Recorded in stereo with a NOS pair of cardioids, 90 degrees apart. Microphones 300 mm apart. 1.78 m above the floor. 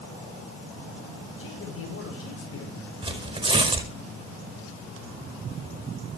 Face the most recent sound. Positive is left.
turn(degrees=-15)